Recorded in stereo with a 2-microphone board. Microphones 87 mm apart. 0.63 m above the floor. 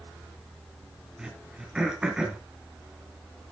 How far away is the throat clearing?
About 1.9 m.